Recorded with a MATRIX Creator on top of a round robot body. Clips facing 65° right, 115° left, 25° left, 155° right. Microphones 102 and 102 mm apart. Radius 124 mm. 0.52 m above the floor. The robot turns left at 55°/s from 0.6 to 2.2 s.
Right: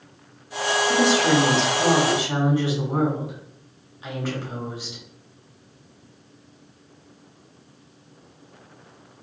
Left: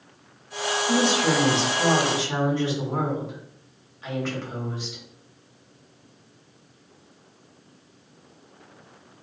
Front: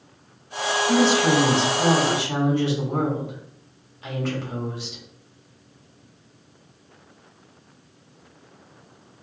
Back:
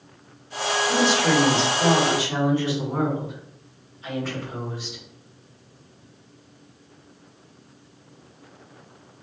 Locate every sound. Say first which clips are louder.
0.9 s a woman speaking: right 2 dB, front 3 dB; 85° left, 1.7 m; by 5.0 s 10° left, 1.7 m